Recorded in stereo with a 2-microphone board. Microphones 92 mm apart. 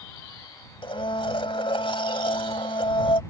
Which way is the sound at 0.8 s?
70° left (ahead or behind).